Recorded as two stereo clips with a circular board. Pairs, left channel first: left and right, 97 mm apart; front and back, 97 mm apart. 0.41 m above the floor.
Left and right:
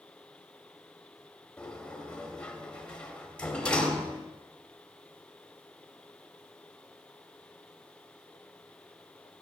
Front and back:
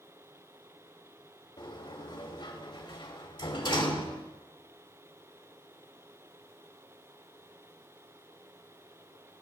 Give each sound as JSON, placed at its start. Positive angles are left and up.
{"t": 1.6, "sound": "a sliding door", "azimuth_deg": 15, "distance_m": 2.5}